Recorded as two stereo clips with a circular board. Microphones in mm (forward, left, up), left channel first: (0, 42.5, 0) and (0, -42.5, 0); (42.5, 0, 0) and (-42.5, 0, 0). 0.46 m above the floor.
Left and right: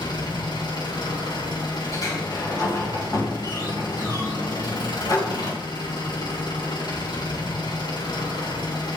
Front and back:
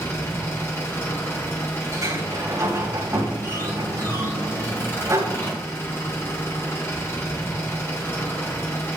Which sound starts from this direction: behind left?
A sliding door, at 1.9 s.